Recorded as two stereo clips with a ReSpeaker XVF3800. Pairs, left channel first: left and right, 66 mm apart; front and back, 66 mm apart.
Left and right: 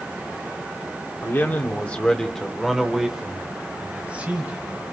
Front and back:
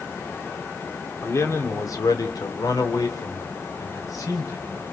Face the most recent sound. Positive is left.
turn(degrees=-25)